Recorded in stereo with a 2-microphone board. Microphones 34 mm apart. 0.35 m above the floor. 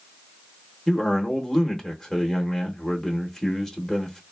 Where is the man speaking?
15° left (ahead or behind), 0.8 m.